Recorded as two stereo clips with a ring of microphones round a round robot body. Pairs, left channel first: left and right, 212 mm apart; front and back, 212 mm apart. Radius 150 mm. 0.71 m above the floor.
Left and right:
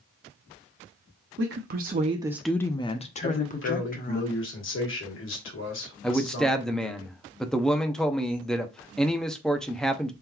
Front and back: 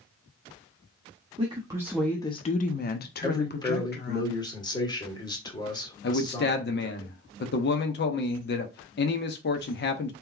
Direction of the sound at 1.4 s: 115° right.